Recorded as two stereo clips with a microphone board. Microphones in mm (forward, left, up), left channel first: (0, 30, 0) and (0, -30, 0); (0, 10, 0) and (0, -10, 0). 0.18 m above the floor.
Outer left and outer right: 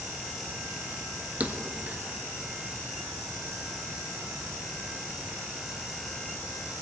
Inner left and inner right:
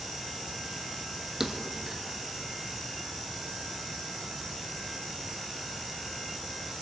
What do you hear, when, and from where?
1.4 s a thud: 25° right (ahead or behind), 1.1 m